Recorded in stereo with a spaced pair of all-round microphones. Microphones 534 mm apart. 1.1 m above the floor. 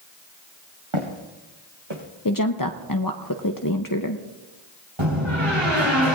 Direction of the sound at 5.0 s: 65° right (ahead or behind).